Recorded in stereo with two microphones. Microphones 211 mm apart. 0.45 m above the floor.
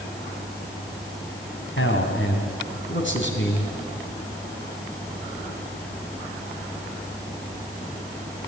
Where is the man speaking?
65° left (ahead or behind), 3.5 m; by 3.6 s 60° left (ahead or behind), 4.5 m.